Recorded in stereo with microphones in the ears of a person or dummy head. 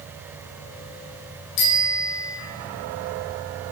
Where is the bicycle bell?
65° left (ahead or behind), 4.5 m.